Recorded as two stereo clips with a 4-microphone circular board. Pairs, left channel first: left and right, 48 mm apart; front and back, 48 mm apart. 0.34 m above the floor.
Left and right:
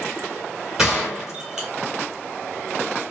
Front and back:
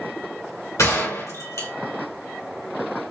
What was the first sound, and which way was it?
A gunshot, 5° right.